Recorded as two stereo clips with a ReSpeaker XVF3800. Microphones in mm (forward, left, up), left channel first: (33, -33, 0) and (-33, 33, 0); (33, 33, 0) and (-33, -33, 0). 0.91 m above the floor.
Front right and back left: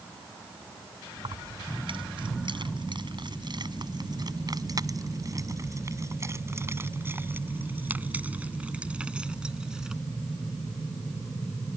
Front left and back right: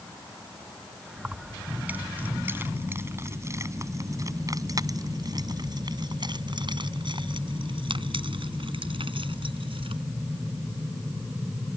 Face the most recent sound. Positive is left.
turn(degrees=-140)